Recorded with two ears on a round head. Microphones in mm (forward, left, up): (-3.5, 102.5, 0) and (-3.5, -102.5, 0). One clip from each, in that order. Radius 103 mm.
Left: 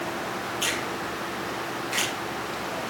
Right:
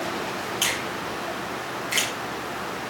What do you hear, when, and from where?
0.6 s a finger snap: 55° right (ahead or behind), 9 m